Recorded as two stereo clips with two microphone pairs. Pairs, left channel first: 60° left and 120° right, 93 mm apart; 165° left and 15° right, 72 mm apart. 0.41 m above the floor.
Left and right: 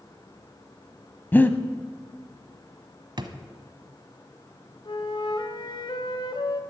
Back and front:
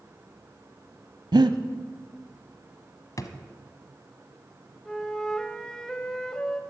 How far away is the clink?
I don't hear a clink.